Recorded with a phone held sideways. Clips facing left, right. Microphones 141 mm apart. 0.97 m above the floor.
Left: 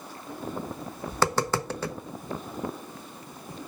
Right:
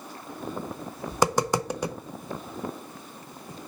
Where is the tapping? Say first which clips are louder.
Right 2 dB; 15° right (ahead or behind), 0.5 m.